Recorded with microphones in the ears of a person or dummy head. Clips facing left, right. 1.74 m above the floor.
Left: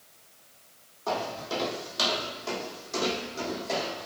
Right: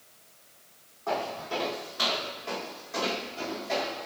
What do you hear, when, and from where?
1.1 s footsteps: 50° left (ahead or behind), 4 m; by 4.1 s 55° left (ahead or behind), 5.5 m